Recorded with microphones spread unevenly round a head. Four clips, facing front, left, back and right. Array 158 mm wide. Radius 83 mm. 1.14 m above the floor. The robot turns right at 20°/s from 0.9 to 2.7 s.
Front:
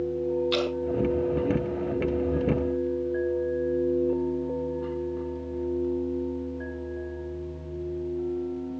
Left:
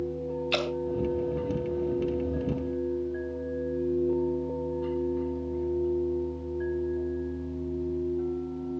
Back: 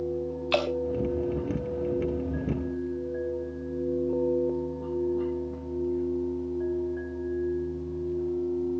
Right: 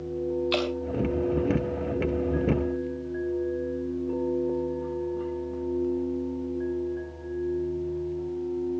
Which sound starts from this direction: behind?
Dripping, at 0.5 s.